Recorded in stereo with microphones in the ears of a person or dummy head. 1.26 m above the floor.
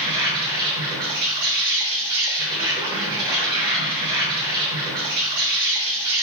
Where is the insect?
20° right (ahead or behind), 1.2 m.